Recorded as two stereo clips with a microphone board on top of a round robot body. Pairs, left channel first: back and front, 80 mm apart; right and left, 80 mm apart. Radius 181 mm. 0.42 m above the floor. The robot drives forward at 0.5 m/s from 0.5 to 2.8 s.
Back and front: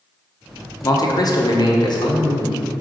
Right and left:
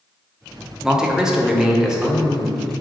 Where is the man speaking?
170° left, 1.3 m; by 2.8 s 175° left, 2 m.